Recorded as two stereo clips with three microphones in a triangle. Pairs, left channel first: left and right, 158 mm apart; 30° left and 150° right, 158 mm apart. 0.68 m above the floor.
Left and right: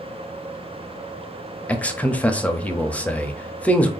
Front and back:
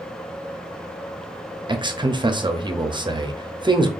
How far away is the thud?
No thud in this recording.